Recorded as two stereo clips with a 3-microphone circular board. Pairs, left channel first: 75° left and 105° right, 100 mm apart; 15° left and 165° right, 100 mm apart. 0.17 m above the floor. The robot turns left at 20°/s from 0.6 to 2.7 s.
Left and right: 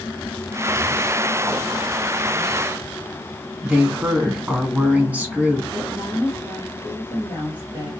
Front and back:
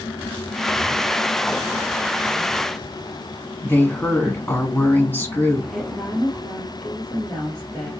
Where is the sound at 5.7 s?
80° right, 2 m.